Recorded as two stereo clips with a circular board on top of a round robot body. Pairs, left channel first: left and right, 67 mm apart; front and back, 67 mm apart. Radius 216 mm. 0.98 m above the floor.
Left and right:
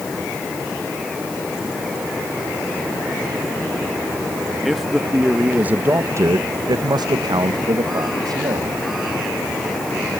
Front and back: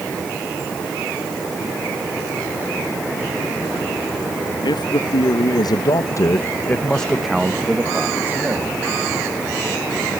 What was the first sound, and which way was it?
A man speaking, straight ahead.